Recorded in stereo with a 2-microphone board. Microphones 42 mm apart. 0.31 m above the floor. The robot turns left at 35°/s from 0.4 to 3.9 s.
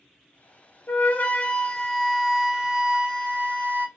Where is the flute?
55° left, 0.6 m; by 3.9 s 50° right, 0.6 m.